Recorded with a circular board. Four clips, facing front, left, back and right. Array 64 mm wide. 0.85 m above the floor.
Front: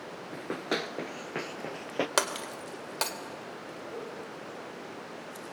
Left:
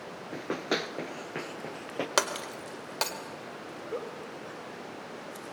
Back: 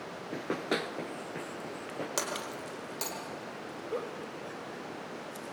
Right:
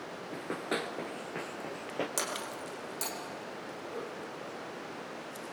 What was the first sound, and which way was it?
Running footsteps, 130° left.